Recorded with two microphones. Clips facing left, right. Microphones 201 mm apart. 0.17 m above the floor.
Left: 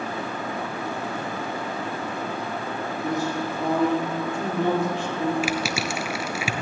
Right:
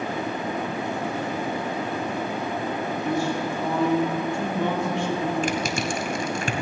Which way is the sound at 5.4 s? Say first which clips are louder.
Right 1 dB; 10° left (ahead or behind).